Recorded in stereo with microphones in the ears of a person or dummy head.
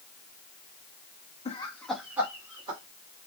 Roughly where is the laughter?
Left.